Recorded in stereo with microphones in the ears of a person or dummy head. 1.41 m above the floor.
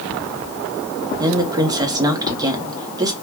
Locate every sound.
1.2 s a woman speaking: 20° right (ahead or behind), 0.7 m